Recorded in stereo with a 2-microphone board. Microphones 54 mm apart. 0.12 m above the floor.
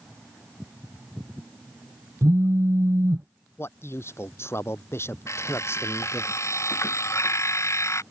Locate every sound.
2.2 s a phone buzzing: 55° right (ahead or behind)
3.6 s a man speaking: 50° left (ahead or behind)
5.3 s an alarm clock: 60° left (ahead or behind)